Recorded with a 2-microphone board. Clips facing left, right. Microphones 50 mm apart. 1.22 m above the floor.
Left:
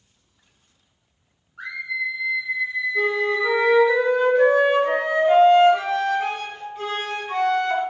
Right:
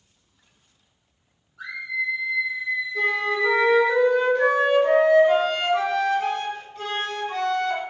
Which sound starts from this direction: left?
A scream, at 1.6 s.